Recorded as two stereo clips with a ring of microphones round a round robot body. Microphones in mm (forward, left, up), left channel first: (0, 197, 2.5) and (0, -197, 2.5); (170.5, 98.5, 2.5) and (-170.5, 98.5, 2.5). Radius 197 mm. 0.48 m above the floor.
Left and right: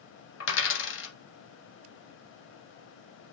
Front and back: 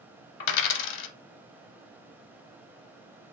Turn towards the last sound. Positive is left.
turn(degrees=30)